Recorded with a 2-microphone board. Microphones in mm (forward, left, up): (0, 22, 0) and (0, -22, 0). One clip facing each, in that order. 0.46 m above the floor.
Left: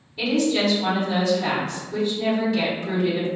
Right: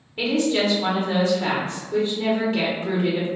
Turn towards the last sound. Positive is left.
turn(degrees=-40)  # may be behind; listen again after turning